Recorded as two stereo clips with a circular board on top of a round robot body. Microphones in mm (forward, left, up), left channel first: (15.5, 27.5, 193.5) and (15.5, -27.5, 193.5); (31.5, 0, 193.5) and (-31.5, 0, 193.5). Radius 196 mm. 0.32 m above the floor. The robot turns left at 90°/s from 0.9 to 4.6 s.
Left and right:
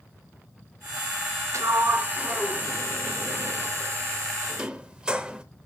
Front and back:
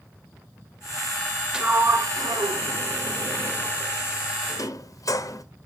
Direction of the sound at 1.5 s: 100° right.